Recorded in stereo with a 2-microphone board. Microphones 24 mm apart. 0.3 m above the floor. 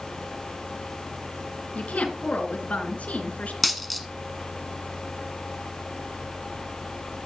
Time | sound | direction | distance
1.8 | a woman speaking | 70° left (ahead or behind) | 3.5 m
3.6 | a dropped coin | centre (ahead or behind) | 1.0 m